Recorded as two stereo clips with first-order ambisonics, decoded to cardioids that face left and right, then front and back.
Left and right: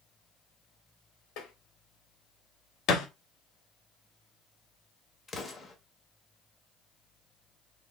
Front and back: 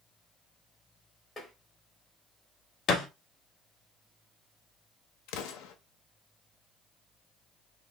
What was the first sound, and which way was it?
Tapping, 80° left.